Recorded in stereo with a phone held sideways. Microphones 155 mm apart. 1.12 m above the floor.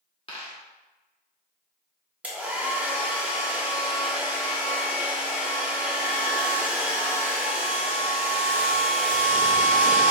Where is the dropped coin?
35° left (ahead or behind), 1.1 m.